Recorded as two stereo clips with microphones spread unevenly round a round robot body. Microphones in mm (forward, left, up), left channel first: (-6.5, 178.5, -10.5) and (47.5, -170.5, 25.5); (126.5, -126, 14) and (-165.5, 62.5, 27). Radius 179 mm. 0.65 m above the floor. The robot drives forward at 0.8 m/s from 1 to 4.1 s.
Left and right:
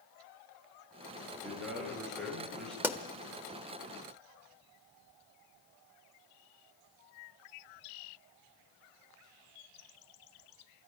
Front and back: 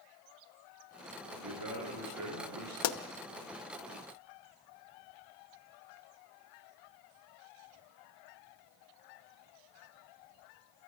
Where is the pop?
5° left, 1.0 m.